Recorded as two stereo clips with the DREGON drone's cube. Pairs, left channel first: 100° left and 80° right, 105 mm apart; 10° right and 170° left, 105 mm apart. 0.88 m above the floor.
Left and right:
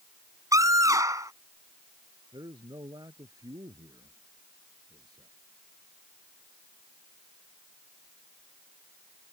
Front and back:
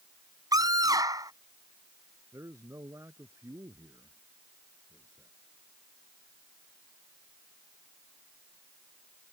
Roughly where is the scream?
Behind right.